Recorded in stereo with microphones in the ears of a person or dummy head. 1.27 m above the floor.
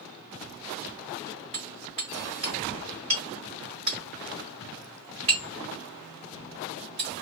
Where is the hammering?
30° right (ahead or behind), 1.6 m.